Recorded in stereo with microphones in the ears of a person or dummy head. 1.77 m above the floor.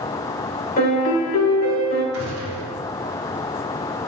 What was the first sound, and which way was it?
A piano, 45° left (ahead or behind).